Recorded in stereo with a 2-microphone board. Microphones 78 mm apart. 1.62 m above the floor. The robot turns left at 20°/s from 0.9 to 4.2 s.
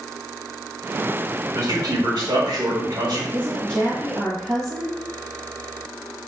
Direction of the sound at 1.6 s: 50° right.